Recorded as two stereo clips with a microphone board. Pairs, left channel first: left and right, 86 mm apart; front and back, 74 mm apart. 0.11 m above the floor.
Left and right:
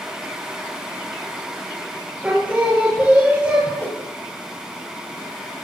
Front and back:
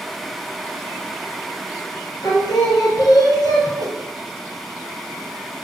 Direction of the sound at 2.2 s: 20° right.